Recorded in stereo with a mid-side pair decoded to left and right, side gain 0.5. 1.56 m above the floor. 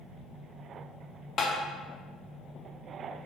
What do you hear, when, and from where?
1.4 s tapping: 45° left, 0.8 m